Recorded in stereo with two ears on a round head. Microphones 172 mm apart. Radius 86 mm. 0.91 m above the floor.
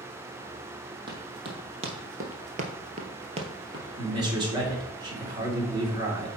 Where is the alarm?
I don't hear an alarm.